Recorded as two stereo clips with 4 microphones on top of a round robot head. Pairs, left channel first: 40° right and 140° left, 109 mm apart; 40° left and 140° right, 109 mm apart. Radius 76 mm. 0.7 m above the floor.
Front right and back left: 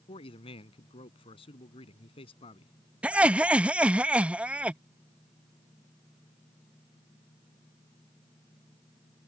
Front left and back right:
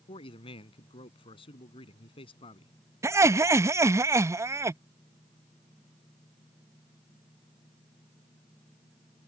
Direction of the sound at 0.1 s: Straight ahead.